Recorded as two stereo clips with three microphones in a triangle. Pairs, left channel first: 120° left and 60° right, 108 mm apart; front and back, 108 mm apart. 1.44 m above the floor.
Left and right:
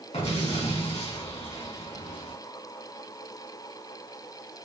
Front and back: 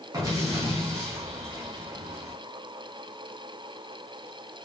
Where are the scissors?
No scissors in this recording.